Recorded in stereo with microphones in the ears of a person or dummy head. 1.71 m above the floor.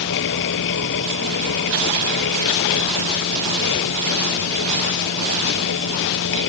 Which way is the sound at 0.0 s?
70° left (ahead or behind).